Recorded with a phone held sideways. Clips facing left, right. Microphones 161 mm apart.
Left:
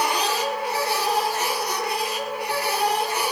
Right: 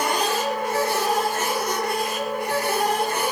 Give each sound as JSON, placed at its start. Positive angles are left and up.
{"t": 0.0, "sound": "a machine running", "side_deg": -50, "distance_m": 4.5}